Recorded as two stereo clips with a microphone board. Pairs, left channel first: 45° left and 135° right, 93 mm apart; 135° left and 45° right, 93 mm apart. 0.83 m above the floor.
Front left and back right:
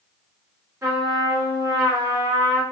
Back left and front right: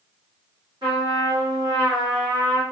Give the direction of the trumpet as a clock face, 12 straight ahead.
3 o'clock.